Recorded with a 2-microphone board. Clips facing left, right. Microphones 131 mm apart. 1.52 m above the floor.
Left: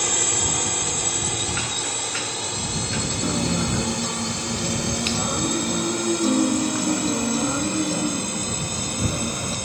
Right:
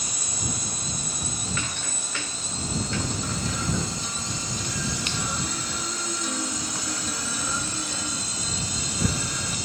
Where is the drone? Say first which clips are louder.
Left 8 dB; 80° left; by 9.7 s 60° left (ahead or behind).